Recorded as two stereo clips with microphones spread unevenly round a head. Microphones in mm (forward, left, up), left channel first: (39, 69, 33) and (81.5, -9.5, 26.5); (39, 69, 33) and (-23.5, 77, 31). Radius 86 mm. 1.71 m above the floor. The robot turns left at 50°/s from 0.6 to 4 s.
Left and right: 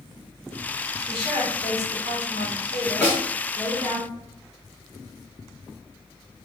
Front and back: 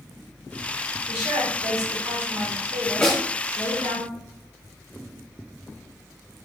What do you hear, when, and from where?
1.1 s a woman speaking: 175° right, 1.4 m; by 4.0 s 40° left, 1.4 m
3.0 s a snare drum: 55° left, 1.7 m; by 3.2 s 45° left, 1.7 m